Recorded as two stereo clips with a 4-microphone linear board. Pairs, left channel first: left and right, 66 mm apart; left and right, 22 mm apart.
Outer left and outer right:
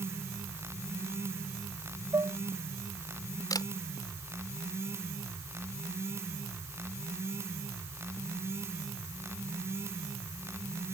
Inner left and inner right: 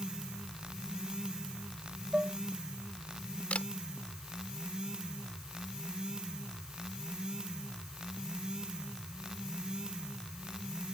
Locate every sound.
2.1 s dishes clattering: 75° right (ahead or behind)
3.5 s a camera shutter: 80° left